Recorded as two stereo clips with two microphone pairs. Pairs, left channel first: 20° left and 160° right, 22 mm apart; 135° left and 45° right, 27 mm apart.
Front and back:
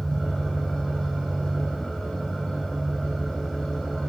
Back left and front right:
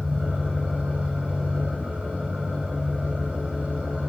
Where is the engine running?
45° right, 5.5 m.